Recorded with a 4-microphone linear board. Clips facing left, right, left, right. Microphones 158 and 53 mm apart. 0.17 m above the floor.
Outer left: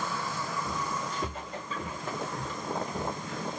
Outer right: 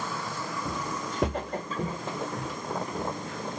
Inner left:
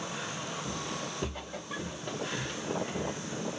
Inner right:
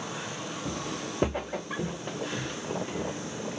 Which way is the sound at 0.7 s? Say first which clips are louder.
Outer right 1 dB, inner right 2 dB; 70° right (ahead or behind).